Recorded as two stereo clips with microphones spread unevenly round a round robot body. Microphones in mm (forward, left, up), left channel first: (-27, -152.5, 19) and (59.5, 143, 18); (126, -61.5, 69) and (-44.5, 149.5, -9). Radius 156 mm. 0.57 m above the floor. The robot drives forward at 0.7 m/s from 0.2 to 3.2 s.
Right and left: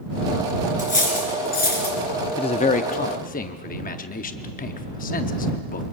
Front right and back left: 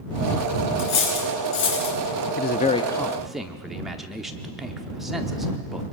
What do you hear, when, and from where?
0.8 s cutlery clinking: 40° right, 5 m; by 2.0 s 45° right, 4 m
2.4 s a man speaking: 60° right, 0.6 m; by 5.8 s 160° right, 0.8 m